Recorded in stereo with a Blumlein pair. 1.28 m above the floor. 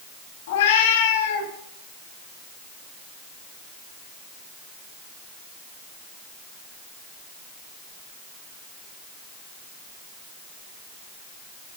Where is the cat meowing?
60° left, 1.7 m.